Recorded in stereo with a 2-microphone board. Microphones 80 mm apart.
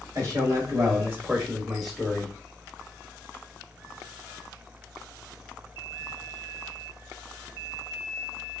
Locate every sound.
0.1 s a man speaking: 45° right (ahead or behind), 1.5 m; by 2.3 s 10° left (ahead or behind), 1.4 m